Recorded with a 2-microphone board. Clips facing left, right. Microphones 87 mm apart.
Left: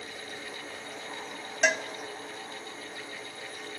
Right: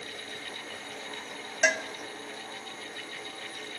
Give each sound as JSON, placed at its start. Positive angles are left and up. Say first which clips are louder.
{"t": 1.6, "sound": "a cowbell", "louder": "even", "side_deg": 0, "distance_m": 1.2}